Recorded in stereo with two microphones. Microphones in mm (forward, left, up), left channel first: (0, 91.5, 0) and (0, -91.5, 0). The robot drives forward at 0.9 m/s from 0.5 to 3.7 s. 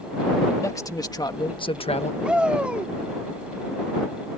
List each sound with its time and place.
0.6 s a man speaking: 15° left (ahead or behind); by 2.1 s 40° left (ahead or behind)
2.2 s a shout: 5° right (ahead or behind)